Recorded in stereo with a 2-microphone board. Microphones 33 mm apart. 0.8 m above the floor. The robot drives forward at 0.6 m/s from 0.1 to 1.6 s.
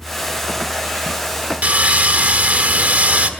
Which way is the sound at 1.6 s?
50° right (ahead or behind).